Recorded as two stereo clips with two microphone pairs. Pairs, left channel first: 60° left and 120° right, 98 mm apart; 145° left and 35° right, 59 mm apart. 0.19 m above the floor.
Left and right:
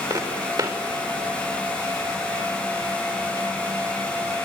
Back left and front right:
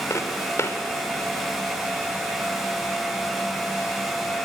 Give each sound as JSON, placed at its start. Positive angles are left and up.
{"t": 0.1, "sound": "footsteps", "azimuth_deg": -170, "distance_m": 3.0}